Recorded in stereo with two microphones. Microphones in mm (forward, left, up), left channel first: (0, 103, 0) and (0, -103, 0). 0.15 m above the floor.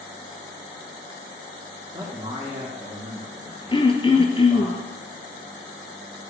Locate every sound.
1.9 s a man speaking: 25° right (ahead or behind), 2 m
3.7 s throat clearing: 25° left (ahead or behind), 1.0 m